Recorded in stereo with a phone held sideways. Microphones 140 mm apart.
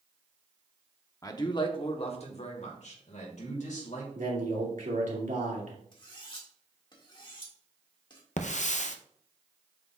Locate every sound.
1.2 s a man speaking: 25° left (ahead or behind), 0.8 m; by 4.0 s 70° left (ahead or behind), 2 m
4.2 s a man speaking: 80° right, 2.5 m
5.9 s cutlery clinking: 35° left (ahead or behind), 1.8 m
8.4 s a hiss: 65° left (ahead or behind), 0.6 m